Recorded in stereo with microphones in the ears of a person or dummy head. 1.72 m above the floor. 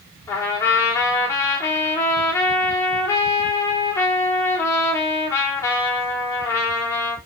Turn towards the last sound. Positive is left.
turn(degrees=15)  # may be behind; listen again after turning